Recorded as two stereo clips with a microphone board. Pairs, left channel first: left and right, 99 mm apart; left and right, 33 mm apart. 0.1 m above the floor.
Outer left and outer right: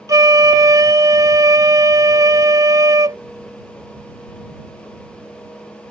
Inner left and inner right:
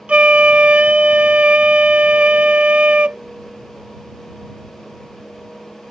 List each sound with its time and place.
0.1 s a flute: 40° right (ahead or behind)